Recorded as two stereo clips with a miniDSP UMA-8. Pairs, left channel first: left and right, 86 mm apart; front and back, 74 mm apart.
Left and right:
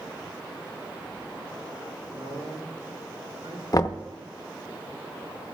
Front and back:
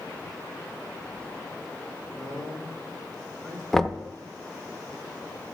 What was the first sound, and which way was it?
A man speaking, 90° right.